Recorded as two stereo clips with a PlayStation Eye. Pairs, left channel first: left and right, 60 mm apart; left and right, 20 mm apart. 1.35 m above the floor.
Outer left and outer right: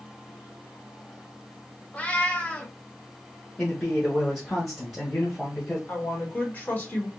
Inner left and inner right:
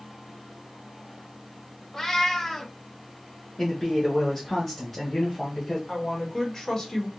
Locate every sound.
1.9 s a cat meowing: 20° left (ahead or behind), 0.6 m
3.6 s a man speaking: 5° left (ahead or behind), 1.0 m
5.9 s a woman speaking: 25° left (ahead or behind), 1.4 m